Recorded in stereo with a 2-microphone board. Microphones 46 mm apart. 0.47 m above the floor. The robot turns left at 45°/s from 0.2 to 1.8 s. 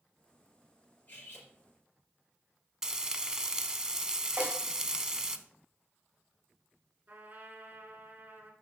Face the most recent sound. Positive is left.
turn(degrees=-35)  # may be behind; listen again after turning